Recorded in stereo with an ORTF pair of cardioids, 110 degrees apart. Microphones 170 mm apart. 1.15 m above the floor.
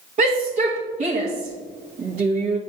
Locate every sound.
0.2 s a shout: 45° right, 1.5 m